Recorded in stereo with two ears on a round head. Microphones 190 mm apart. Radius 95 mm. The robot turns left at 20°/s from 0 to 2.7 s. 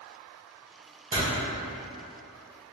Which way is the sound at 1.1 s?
25° right (ahead or behind).